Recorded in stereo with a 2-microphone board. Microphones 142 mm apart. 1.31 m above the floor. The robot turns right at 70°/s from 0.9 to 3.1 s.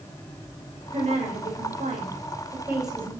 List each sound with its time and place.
0.9 s a woman speaking: 140° right, 5.5 m; by 3.1 s 15° left, 5.5 m